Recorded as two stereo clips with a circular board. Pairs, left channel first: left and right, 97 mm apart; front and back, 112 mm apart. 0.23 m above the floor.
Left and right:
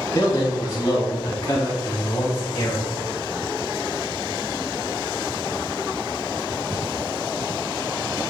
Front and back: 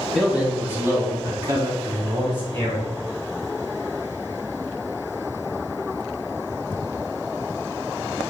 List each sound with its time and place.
0.1 s a man speaking: 95° left, 1.3 m; by 2.9 s 145° left, 2.5 m